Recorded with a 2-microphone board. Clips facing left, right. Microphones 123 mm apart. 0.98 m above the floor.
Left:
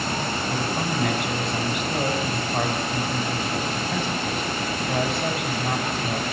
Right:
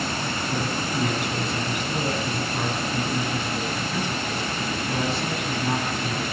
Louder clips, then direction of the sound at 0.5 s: Even; 85° left.